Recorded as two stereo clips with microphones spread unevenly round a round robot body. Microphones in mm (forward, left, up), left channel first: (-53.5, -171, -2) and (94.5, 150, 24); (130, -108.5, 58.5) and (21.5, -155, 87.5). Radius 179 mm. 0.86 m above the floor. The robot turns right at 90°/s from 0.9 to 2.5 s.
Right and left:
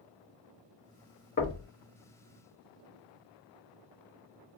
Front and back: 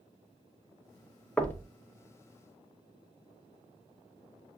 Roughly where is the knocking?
Ahead right.